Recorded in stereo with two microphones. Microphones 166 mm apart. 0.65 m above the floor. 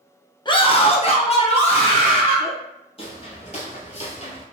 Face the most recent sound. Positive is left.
turn(degrees=35)  # may be behind; listen again after turning